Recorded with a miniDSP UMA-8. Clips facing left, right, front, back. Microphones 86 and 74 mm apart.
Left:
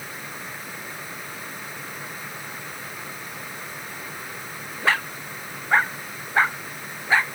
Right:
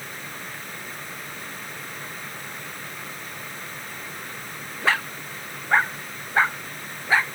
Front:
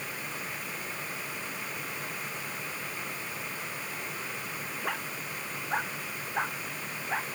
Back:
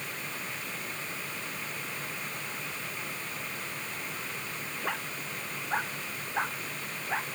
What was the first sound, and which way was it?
Only background noise.